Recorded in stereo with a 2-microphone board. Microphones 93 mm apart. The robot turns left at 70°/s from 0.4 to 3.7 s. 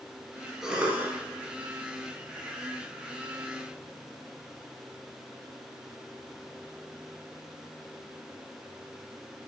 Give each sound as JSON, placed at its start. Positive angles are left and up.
{"t": 0.6, "sound": "a cough", "azimuth_deg": -5, "distance_m": 1.7}